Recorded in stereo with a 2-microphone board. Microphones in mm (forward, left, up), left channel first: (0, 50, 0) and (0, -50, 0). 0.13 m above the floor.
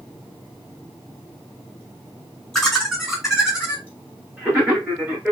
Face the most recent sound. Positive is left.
turn(degrees=-30)  # may be behind; listen again after turning